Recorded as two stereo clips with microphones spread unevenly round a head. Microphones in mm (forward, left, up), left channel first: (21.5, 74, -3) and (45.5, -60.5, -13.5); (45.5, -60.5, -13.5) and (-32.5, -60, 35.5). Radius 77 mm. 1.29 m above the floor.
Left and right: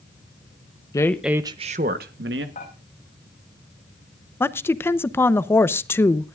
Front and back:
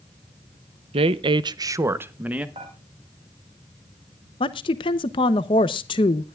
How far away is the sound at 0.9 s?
About 0.8 m.